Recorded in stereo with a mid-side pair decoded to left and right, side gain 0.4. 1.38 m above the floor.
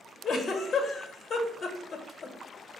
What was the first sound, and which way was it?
A giggle, 55° left.